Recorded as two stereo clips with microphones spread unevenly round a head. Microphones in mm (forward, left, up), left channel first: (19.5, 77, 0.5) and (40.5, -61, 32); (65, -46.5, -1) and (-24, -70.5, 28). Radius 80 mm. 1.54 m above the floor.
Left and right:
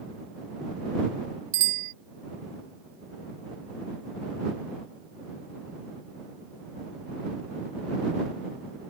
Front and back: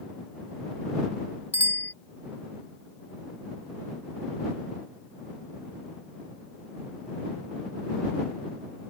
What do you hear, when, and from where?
1.5 s a bicycle bell: 60° right